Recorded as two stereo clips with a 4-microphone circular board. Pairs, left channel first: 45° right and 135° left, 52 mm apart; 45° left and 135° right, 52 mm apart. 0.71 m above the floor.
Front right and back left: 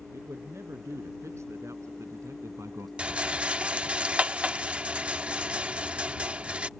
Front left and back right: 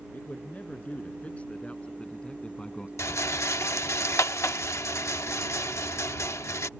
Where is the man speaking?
105° left; by 2.9 s 120° left.